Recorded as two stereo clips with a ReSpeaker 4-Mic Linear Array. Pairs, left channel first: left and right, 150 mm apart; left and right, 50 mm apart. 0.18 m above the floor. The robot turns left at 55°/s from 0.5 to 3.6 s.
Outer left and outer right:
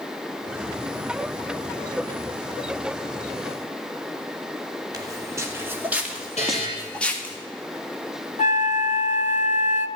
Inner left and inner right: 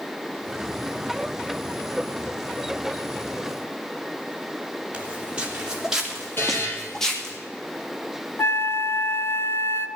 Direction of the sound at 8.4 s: 55° left (ahead or behind).